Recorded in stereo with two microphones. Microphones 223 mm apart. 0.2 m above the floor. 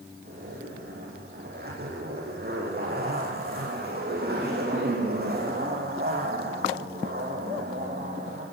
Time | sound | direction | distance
0.2 | a zipper | 45° right (ahead or behind) | 7.5 m